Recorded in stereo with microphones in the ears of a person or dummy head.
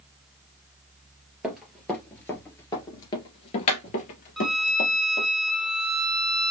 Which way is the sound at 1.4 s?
5° right (ahead or behind).